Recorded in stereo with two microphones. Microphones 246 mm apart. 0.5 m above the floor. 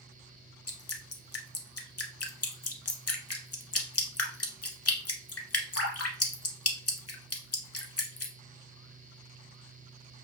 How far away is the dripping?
About 0.7 m.